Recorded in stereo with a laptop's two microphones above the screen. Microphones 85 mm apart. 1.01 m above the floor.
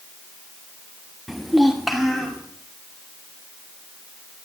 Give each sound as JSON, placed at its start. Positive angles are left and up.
{"t": 1.3, "sound": "a child speaking", "side_deg": -5, "distance_m": 0.8}